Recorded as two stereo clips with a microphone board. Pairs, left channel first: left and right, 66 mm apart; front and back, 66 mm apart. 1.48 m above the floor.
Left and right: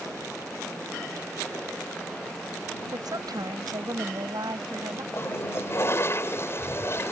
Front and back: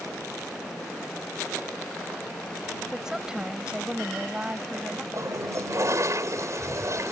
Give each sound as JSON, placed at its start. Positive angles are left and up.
{"t": 2.9, "sound": "a woman speaking", "azimuth_deg": -100}
{"t": 5.1, "sound": "a toilet flushing", "azimuth_deg": 140}